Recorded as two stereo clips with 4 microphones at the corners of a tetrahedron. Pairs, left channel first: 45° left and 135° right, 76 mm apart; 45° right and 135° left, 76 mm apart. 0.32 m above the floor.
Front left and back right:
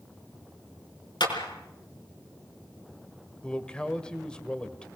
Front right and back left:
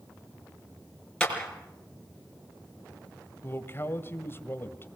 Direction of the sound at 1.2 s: 35° left.